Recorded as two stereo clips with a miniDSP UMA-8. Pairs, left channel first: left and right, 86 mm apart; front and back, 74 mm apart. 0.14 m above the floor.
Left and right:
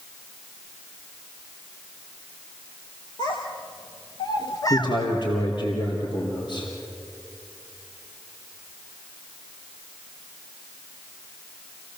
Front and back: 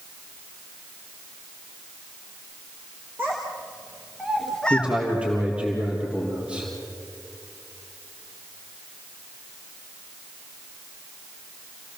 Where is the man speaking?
110° left, 4 m.